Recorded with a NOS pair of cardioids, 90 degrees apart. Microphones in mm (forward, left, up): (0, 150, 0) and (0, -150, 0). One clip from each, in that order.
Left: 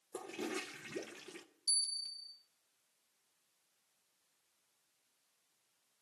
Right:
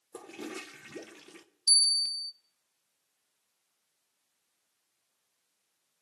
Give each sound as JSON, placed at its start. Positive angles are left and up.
{"t": 0.1, "sound": "a toilet flushing", "azimuth_deg": 0, "distance_m": 0.7}
{"t": 1.7, "sound": "a bell", "azimuth_deg": -50, "distance_m": 0.8}